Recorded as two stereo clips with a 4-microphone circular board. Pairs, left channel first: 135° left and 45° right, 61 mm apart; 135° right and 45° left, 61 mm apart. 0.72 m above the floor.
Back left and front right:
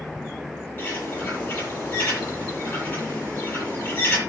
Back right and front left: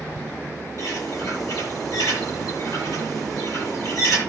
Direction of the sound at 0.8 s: 160° right.